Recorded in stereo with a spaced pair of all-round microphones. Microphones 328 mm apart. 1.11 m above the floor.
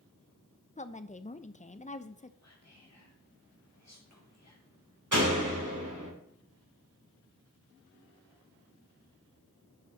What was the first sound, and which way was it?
A woman speaking, 25° left (ahead or behind).